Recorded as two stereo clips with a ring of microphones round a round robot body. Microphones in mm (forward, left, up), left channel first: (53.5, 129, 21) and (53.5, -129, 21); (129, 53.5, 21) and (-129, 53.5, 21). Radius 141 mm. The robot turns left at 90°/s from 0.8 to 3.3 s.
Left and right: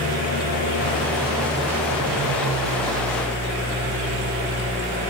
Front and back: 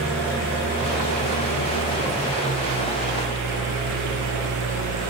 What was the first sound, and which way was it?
An engine running, 30° left.